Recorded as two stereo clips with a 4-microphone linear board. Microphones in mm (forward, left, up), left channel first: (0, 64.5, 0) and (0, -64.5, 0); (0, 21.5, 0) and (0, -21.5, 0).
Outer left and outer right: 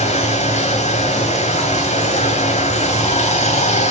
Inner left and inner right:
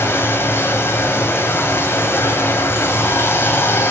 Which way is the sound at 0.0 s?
60° left (ahead or behind).